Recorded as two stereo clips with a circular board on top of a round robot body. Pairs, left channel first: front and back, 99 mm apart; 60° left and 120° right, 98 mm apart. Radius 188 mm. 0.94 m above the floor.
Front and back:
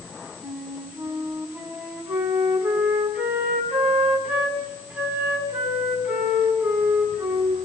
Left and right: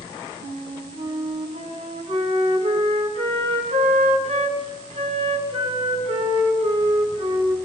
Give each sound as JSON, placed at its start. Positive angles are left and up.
{"t": 0.4, "sound": "a flute", "azimuth_deg": -105, "distance_m": 6.0}